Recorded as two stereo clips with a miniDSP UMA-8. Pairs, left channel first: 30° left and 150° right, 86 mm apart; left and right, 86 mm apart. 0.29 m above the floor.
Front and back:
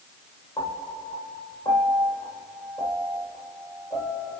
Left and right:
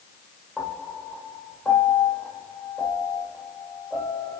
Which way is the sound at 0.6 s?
10° left.